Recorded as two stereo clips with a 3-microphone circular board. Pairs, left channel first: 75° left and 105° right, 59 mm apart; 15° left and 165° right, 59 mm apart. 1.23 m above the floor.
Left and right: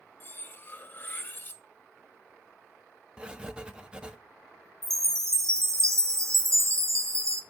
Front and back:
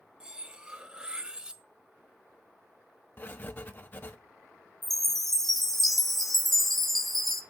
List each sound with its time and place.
0.2 s cutlery clinking: 120° left, 0.6 m
3.2 s writing: 30° right, 0.6 m
4.8 s a chime: 70° right, 0.9 m